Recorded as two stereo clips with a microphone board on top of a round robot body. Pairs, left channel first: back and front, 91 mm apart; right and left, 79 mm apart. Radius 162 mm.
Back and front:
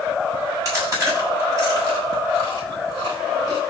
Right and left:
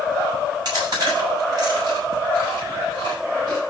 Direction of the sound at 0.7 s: 55° left.